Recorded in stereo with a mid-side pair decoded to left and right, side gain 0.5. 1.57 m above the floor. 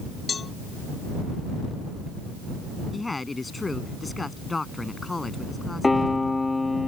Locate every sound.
0.3 s a cowbell: 35° left
2.9 s a woman speaking: 20° left
5.8 s a piano: 15° left